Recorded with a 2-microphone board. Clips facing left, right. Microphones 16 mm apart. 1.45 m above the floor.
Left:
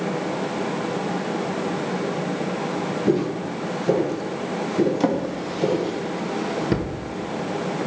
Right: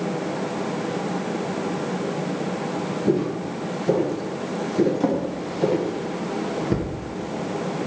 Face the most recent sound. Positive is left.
turn(degrees=40)  # may be behind; listen again after turning